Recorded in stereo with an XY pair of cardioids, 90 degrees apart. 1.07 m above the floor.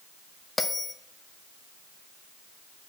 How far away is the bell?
About 0.6 m.